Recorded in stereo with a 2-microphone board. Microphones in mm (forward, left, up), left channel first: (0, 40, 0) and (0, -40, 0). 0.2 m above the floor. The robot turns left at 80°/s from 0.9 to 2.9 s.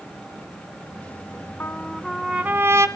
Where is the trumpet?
40° left, 1.4 m; by 2.9 s 65° right, 1.4 m.